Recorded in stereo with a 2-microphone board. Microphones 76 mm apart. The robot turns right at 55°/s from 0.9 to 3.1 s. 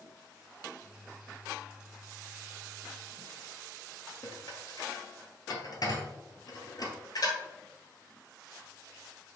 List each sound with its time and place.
4.2 s dishes clattering: 55° left (ahead or behind), 1.5 m